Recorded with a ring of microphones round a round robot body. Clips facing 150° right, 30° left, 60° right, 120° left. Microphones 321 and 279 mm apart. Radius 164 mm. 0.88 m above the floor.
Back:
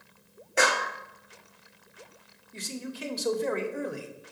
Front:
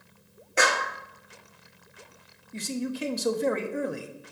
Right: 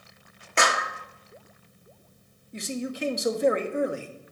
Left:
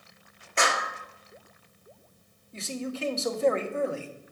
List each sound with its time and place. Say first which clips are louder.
0.6 s a clap: even, right 2 dB; 60° right, 1.3 m
2.5 s a man speaking: front 7 dB, right 2 dB; 15° left, 1.0 m